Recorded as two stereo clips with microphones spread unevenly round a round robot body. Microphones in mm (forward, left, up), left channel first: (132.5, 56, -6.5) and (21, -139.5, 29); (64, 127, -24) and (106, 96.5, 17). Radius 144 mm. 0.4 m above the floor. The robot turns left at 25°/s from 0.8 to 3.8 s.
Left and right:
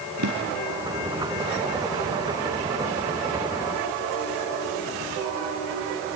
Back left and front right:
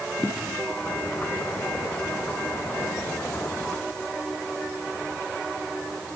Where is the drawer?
135° right, 3 m.